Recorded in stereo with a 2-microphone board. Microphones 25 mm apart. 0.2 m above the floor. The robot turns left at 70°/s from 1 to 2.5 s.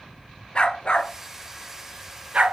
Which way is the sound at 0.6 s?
40° left (ahead or behind).